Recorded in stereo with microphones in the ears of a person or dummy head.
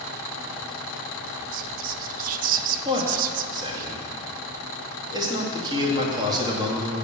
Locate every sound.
1.5 s whispering: 45° right (ahead or behind), 0.8 m
2.9 s a man speaking: 20° right (ahead or behind), 2.0 m